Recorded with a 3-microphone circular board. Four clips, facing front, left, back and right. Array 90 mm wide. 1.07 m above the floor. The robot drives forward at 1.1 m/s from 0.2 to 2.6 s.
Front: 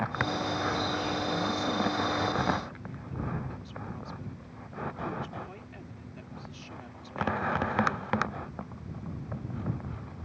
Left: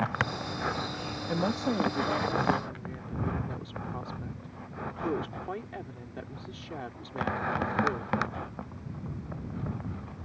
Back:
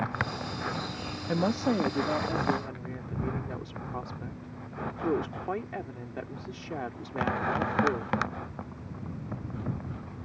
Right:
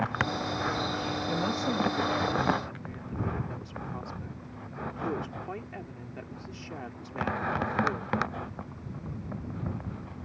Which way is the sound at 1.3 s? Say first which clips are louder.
Left 3 dB, back 3 dB; 160° left.